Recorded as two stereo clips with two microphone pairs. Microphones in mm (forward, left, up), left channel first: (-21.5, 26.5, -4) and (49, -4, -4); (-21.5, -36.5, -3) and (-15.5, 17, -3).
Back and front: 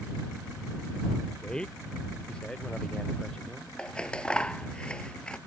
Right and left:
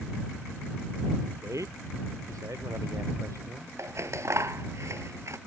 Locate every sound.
1.4 s a man speaking: 75° left
3.8 s scissors: 80° left